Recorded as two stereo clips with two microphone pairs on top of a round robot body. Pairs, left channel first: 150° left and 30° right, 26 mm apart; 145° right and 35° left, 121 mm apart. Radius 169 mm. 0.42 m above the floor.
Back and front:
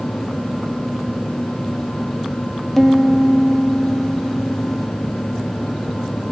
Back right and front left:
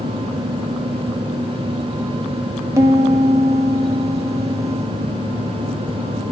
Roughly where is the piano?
Ahead left.